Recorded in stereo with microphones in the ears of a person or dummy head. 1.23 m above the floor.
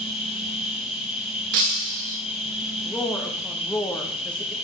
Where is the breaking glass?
50° right (ahead or behind), 1.2 m.